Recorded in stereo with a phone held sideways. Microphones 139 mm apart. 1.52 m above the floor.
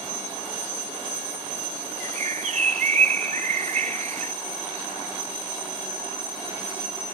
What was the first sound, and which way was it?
A bird, 65° right (ahead or behind).